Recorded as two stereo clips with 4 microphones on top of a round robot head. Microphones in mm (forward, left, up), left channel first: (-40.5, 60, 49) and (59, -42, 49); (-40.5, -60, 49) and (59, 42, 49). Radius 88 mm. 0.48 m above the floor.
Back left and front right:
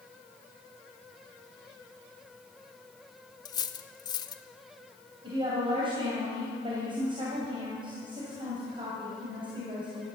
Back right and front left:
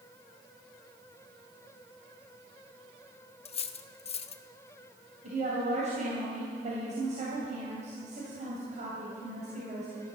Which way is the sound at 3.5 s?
170° right.